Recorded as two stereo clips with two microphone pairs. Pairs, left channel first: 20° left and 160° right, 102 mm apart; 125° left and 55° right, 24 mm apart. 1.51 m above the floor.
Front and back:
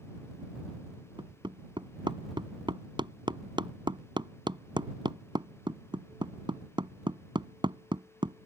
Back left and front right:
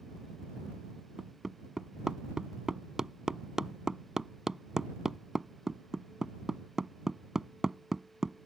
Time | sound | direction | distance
1.2 | hammering | 120° right | ?